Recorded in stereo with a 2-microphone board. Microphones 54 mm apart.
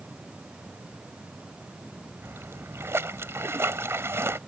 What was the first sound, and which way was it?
A splash, 55° right (ahead or behind).